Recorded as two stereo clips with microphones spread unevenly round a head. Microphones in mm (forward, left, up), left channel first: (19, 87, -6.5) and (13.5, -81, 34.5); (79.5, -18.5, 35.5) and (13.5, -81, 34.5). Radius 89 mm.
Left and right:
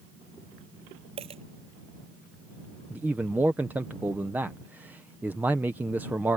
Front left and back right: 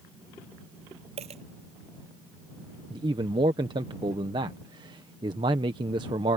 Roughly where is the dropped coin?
Behind right.